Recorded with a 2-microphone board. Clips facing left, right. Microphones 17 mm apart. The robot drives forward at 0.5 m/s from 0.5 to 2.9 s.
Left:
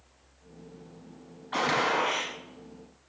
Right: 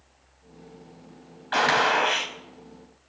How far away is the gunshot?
About 3.5 m.